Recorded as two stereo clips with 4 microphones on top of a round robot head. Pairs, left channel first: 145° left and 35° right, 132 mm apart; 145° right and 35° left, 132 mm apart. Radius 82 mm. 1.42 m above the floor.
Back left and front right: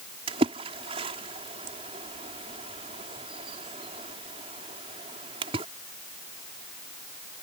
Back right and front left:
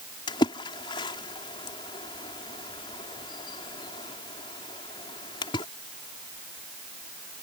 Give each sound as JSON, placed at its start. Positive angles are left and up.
{"t": 0.3, "sound": "a splash", "azimuth_deg": -85}